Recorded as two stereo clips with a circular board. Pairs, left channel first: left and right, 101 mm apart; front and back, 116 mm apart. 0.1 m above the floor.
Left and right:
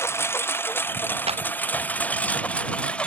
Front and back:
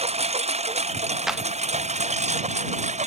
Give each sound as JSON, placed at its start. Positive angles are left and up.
{"t": 0.0, "sound": "a lawn mower", "azimuth_deg": 155}
{"t": 1.3, "sound": "a clap", "azimuth_deg": -95}